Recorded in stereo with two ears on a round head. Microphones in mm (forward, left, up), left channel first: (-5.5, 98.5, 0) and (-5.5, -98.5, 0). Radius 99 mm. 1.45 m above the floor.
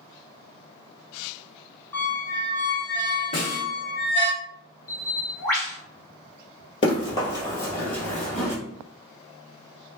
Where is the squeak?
10° left (ahead or behind), 0.7 m.